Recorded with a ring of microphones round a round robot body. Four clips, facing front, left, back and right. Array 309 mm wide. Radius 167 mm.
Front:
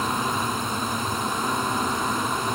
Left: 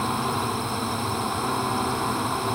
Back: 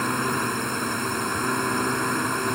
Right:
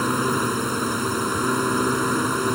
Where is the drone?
105° right.